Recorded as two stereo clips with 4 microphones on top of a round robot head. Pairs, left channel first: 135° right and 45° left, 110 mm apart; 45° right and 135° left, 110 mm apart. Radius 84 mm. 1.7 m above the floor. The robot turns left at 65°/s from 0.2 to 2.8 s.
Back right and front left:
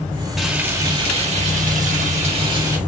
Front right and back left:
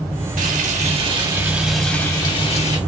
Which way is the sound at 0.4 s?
130° left.